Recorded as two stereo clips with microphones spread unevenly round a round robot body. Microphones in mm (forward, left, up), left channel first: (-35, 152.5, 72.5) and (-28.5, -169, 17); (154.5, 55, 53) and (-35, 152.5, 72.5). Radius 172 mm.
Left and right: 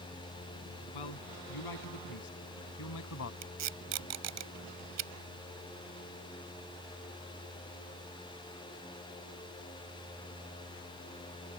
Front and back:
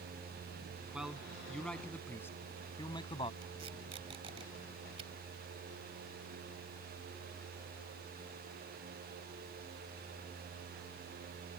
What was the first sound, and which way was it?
A man speaking, 65° left.